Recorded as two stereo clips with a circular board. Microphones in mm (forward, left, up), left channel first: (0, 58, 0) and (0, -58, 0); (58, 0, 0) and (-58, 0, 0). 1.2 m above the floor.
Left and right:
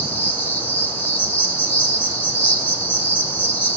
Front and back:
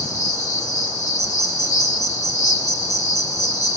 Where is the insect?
20° left, 3 m.